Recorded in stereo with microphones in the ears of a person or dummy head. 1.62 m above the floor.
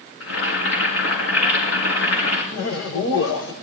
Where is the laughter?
80° left, 1.2 m.